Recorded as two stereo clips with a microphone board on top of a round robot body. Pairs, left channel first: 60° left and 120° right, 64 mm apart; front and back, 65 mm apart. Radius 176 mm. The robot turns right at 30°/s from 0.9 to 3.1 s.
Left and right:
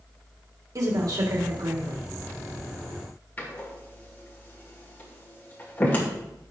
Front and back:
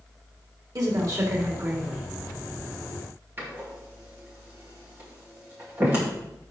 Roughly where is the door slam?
Behind left.